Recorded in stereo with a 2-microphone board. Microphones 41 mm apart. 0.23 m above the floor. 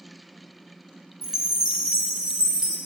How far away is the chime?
About 1.6 m.